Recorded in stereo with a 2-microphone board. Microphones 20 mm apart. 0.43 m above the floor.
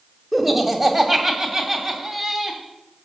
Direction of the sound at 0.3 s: 20° right (ahead or behind).